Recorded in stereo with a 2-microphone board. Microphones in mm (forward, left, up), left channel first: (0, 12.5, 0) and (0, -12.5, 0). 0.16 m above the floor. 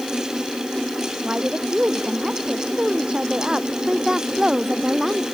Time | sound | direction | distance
1.2 | a woman speaking | 45° right (ahead or behind) | ?